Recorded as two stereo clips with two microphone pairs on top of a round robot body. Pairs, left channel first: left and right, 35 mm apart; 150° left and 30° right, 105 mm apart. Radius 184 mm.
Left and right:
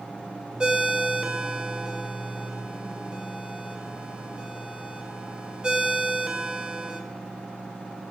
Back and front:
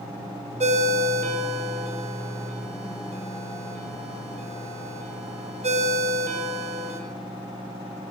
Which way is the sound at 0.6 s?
25° right.